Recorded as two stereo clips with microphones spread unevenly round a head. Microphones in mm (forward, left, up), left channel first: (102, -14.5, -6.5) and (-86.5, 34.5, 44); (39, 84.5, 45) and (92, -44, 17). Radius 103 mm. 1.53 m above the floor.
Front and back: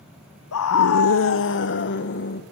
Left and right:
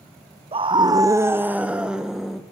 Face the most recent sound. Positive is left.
turn(degrees=25)